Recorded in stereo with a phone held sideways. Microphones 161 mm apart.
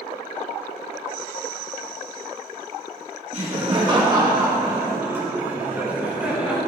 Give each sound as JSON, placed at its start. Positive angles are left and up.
{"t": 3.3, "sound": "laughter", "side_deg": -40, "distance_m": 1.1}